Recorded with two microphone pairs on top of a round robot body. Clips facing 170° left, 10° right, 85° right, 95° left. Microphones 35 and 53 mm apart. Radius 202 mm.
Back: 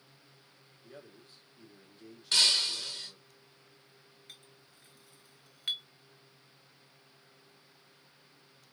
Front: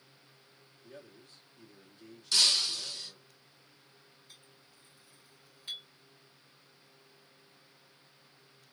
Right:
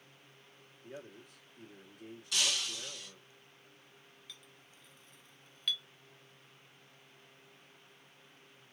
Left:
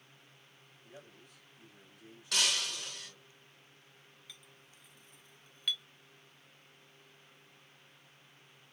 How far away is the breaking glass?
About 1.2 m.